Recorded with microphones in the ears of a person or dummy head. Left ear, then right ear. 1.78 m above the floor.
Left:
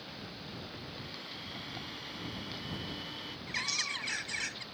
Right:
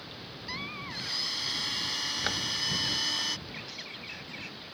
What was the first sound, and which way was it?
A blender, 45° right (ahead or behind).